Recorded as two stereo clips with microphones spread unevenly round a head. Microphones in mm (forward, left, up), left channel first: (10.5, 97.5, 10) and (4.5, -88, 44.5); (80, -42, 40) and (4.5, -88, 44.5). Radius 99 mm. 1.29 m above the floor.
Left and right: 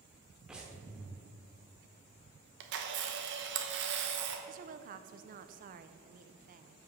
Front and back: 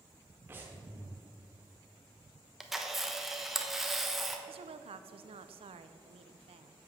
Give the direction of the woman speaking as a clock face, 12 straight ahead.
5 o'clock.